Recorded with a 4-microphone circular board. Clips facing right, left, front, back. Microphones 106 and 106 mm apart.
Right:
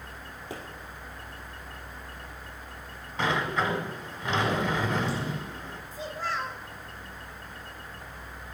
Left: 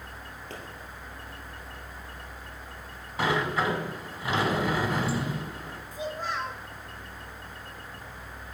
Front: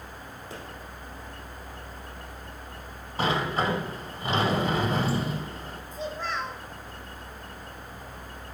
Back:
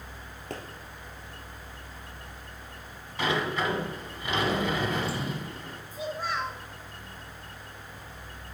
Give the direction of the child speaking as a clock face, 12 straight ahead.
8 o'clock.